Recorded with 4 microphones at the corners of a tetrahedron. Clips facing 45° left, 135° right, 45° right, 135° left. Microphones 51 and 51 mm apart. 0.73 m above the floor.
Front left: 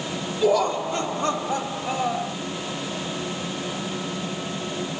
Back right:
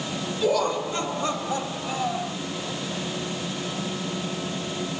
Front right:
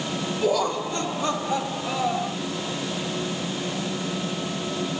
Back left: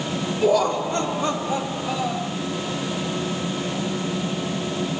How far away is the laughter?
About 1.9 m.